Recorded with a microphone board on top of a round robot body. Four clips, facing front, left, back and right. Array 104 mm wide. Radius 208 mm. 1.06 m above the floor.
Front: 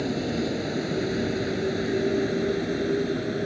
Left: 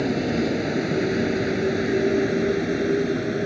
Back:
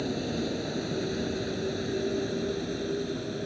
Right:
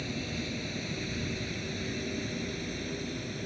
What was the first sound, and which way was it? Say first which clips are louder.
A vehicle: left 14 dB, front 4 dB; 80° left.